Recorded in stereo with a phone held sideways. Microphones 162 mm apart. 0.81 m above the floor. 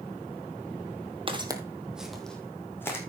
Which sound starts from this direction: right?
Footsteps, at 1.3 s.